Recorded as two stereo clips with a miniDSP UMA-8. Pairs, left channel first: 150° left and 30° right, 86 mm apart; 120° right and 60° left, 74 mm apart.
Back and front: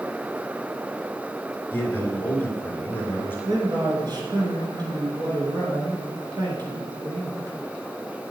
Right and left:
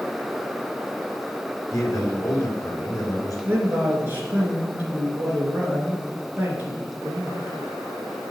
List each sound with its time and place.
1.7 s a man speaking: 150° right, 2.5 m
3.5 s a man speaking: straight ahead, 2.5 m